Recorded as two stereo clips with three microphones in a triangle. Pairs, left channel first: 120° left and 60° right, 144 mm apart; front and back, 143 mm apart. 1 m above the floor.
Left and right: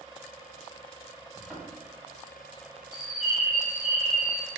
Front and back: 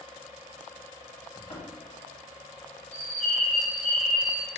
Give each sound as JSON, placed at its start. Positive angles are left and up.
{"t": 1.4, "sound": "a thud", "azimuth_deg": 25, "distance_m": 1.8}
{"t": 2.9, "sound": "a bird", "azimuth_deg": -145, "distance_m": 1.5}